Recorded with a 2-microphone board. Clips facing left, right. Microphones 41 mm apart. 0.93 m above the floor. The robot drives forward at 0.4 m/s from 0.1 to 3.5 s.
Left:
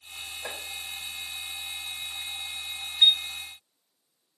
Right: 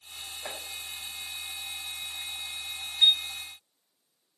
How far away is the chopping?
About 4 m.